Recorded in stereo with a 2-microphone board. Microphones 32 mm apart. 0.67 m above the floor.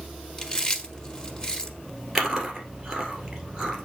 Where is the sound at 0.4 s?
25° left (ahead or behind), 1.1 m.